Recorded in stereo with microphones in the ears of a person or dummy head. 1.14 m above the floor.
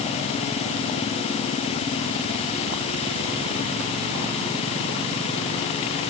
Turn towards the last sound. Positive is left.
No sound to turn to.